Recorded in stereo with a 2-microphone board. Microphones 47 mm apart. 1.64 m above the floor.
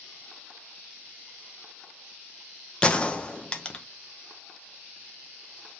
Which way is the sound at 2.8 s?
20° left (ahead or behind).